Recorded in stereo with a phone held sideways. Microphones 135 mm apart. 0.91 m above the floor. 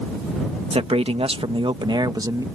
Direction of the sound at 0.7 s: 45° right (ahead or behind).